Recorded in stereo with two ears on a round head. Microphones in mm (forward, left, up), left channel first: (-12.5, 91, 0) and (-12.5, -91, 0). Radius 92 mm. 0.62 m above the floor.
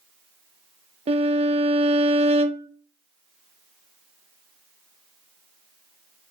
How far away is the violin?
About 0.5 m.